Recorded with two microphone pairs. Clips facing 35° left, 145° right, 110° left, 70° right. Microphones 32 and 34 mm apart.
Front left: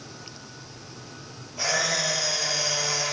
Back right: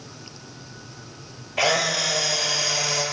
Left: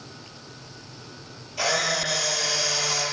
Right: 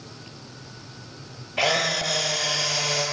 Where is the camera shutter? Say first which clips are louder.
Back right 4 dB, right 2 dB; 125° right, 7.5 m.